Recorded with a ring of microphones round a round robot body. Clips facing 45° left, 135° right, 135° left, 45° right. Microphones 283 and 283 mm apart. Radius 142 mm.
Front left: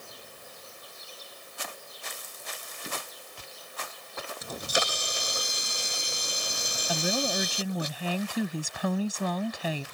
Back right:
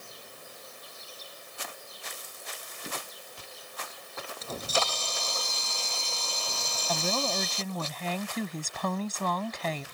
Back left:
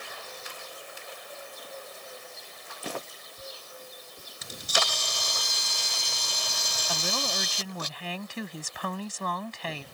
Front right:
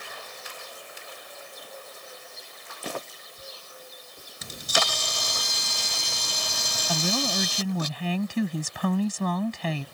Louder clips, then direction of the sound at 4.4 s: Even, front right 3 dB; 30° right.